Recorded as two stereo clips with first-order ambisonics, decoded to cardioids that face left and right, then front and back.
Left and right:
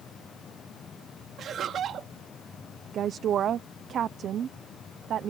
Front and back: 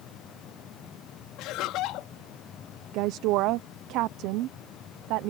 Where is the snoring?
No snoring in this recording.